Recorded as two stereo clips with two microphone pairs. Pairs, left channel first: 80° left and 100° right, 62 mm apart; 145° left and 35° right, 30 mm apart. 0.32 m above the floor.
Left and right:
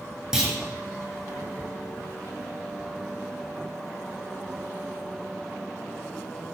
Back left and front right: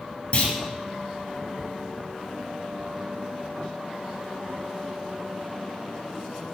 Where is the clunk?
Straight behind, 1.4 m.